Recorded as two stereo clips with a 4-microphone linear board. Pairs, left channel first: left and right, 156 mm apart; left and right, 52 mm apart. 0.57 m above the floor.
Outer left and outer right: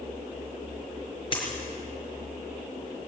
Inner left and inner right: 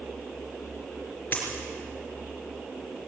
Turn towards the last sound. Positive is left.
turn(degrees=35)  # may be behind; listen again after turning